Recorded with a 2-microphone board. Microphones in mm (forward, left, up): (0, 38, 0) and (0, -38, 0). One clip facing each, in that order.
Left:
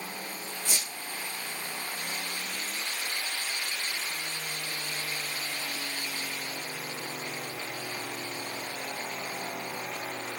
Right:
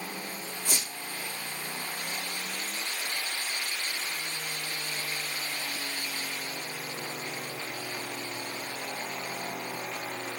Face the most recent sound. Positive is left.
turn(degrees=-55)  # may be behind; listen again after turning